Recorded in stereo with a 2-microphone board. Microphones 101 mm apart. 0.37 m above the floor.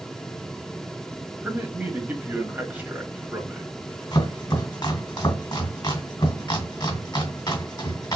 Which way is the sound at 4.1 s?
40° left (ahead or behind).